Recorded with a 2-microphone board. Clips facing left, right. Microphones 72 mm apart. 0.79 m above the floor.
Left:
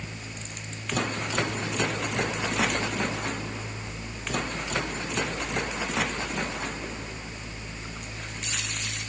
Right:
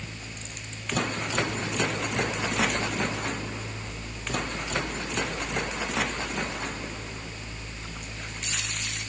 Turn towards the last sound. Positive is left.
No sound to turn to.